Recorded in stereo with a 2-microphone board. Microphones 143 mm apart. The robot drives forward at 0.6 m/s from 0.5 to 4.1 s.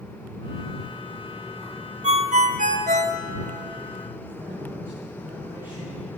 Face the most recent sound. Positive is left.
turn(degrees=-15)  # may be behind; listen again after turning